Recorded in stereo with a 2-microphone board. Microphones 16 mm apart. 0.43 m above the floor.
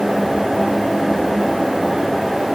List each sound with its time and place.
Only background noise.